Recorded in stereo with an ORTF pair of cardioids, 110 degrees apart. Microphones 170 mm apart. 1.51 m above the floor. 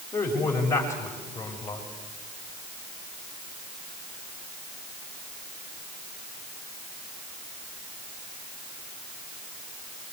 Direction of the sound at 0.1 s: 15° left.